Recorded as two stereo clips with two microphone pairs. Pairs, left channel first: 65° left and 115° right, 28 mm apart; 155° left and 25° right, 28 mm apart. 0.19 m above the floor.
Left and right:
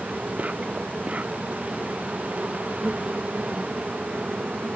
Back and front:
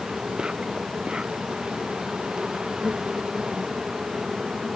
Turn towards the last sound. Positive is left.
turn(degrees=-90)